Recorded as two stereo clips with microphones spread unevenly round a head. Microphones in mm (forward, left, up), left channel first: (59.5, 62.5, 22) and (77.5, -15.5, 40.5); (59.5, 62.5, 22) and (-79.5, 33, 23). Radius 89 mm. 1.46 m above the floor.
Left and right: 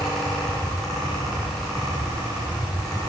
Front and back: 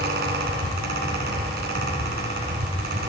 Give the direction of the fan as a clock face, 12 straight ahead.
6 o'clock.